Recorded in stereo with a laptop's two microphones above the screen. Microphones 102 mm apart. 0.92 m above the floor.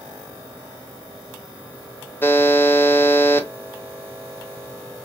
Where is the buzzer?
20° left (ahead or behind), 0.8 m.